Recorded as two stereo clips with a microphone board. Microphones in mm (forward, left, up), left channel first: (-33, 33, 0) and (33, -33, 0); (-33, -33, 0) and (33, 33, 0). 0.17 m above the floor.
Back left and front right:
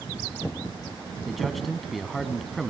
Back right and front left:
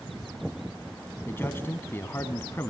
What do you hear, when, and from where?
1.3 s a man speaking: 135° right, 1.1 m